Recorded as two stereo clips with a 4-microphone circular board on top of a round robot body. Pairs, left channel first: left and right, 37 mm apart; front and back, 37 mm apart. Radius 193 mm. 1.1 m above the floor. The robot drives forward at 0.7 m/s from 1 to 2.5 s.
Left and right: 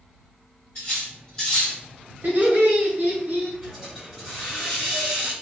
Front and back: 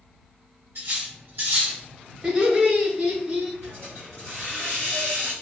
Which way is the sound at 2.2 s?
110° right.